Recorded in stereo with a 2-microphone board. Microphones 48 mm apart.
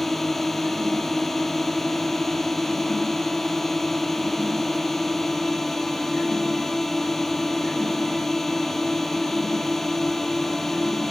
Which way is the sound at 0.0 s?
5° left (ahead or behind).